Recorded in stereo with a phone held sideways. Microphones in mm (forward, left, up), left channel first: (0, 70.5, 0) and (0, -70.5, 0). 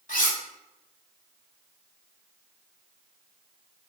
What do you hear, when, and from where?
0.1 s cutlery clinking: 70° left (ahead or behind), 1.2 m